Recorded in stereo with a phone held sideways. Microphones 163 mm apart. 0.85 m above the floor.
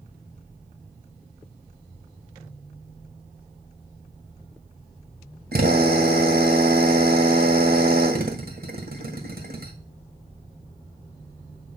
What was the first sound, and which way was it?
A drill, 70° right (ahead or behind).